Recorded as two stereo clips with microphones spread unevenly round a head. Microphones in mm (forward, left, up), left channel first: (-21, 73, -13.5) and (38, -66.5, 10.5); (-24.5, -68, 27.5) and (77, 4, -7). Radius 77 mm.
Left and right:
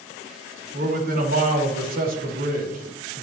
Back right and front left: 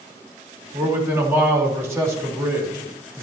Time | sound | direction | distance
0.7 | a man speaking | 35° right | 4.5 m